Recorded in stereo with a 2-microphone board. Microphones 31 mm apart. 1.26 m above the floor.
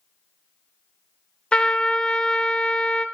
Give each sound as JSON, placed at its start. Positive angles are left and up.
{"t": 1.5, "sound": "a trumpet", "side_deg": 30, "distance_m": 0.8}